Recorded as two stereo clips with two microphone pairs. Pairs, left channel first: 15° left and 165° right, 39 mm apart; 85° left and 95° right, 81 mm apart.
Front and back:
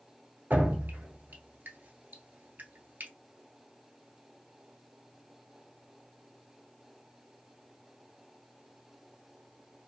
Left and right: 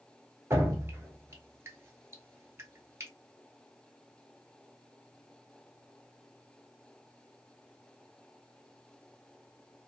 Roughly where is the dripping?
Behind right.